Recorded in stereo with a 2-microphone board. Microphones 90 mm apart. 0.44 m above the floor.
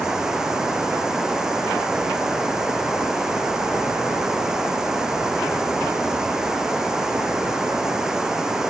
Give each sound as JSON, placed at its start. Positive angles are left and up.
{"t": 0.0, "sound": "running water", "side_deg": -5}